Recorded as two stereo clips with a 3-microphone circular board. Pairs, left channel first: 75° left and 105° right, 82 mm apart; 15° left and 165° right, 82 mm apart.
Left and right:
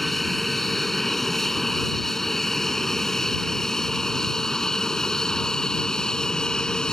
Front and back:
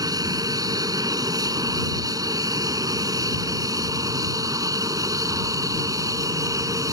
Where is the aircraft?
160° left; by 6.9 s 155° left.